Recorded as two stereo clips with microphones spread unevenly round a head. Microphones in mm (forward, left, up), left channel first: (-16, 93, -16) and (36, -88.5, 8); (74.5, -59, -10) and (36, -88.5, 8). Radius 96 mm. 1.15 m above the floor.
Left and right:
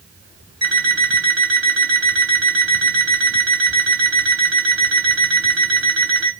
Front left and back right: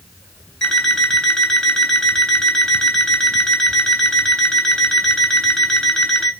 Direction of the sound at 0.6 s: 40° right.